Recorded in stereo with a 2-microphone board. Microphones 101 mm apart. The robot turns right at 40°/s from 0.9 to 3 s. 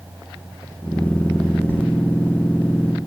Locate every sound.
1.7 s a sliding door: 20° left (ahead or behind), 2 m; by 1.8 s 15° left (ahead or behind), 2 m